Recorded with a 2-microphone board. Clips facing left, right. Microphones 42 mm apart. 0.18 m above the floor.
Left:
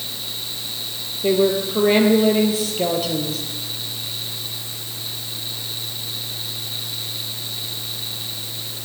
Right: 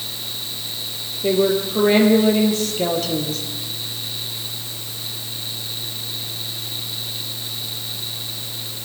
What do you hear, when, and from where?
1.2 s a woman speaking: 5° left (ahead or behind), 3.5 m